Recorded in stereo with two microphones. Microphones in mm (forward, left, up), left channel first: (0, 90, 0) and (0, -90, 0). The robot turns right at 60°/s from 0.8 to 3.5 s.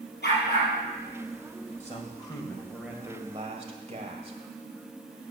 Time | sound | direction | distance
0.2 | a dog barking | 65° left (ahead or behind) | 4 m
1.8 | a man speaking | 125° left | 1.8 m